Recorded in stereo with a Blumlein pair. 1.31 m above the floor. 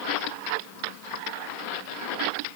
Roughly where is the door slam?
No door slam in this recording.